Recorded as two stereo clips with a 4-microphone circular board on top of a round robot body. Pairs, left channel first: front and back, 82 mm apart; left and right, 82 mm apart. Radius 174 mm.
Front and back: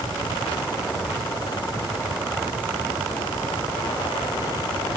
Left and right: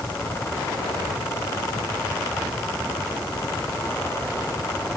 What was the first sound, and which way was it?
Only background noise.